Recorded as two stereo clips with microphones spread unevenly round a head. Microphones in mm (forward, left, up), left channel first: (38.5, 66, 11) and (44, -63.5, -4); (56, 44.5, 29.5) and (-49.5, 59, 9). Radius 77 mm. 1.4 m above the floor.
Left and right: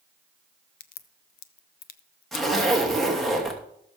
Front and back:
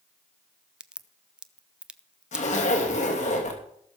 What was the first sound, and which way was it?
A crack, 90° left.